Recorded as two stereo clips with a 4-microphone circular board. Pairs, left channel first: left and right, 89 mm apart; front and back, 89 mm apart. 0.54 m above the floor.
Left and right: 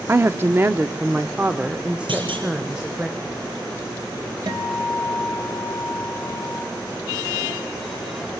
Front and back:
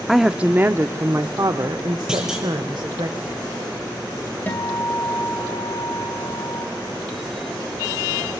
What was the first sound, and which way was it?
A woman speaking, 90° right.